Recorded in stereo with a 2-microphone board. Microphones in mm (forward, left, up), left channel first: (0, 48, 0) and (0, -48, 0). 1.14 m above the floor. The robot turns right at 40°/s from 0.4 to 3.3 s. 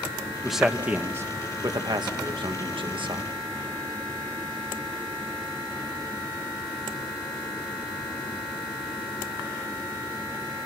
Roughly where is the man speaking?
Centre.